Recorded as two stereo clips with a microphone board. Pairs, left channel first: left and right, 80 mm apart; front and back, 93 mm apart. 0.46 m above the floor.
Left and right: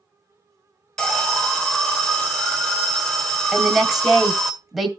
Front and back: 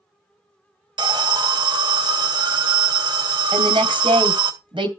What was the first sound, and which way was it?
An alarm, 170° left.